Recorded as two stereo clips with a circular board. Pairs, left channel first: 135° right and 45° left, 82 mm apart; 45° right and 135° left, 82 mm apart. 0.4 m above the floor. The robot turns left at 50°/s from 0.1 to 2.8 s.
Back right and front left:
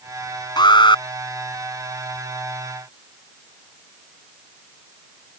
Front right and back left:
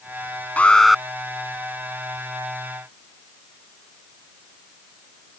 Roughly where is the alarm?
Behind right.